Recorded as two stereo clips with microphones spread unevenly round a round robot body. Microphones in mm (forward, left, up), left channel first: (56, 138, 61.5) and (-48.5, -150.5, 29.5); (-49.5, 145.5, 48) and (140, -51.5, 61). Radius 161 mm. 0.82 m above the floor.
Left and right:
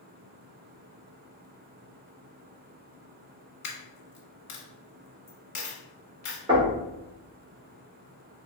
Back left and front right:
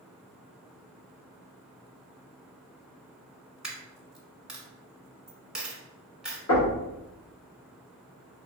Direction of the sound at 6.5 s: 175° left.